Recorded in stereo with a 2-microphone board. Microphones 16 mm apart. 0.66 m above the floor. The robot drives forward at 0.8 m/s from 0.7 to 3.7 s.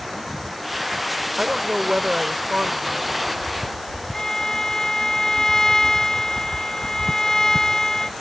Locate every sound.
1.4 s a woman speaking: 70° right (ahead or behind); by 3.5 s 60° right (ahead or behind)
4.1 s a violin: 35° left (ahead or behind)